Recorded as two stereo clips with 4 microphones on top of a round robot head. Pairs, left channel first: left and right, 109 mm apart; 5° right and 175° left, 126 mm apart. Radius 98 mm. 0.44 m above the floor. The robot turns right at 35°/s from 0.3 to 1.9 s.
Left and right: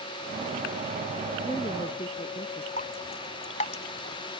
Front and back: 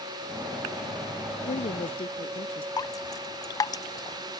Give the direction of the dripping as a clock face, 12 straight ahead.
10 o'clock.